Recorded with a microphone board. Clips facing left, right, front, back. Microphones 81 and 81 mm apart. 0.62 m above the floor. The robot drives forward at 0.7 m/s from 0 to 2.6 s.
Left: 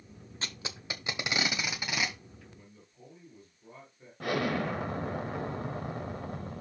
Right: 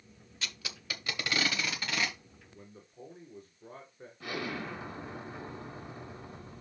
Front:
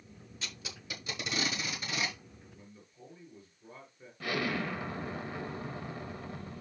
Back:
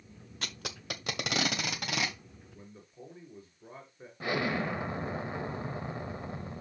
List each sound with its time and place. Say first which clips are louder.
0.4 s tape being pulled: left 2 dB, back 5 dB; 145° left, 0.7 m; by 2.2 s 165° left, 1.9 m
2.5 s a man speaking: right 4 dB, back 4 dB; 130° right, 2.5 m
4.2 s an explosion: left 7 dB, back 2 dB; 115° left, 0.9 m